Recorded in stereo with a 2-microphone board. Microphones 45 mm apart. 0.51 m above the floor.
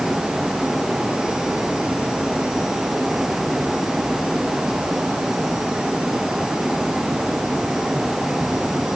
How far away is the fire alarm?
I don't hear a fire alarm.